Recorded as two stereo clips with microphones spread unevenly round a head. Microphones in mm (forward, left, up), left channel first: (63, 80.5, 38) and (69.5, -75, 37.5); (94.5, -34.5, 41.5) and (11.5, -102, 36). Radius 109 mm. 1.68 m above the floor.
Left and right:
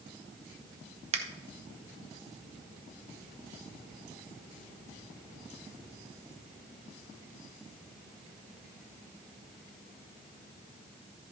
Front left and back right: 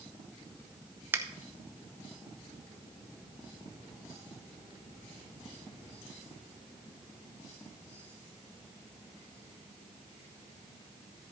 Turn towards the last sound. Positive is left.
turn(degrees=-80)